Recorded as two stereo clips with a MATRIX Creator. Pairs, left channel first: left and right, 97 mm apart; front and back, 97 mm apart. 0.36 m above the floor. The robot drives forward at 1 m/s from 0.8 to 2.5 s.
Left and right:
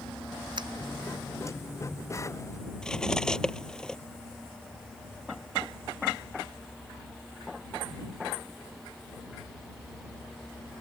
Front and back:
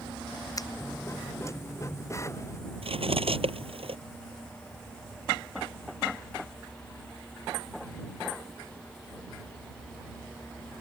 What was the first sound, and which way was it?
A finger snap, 50° right.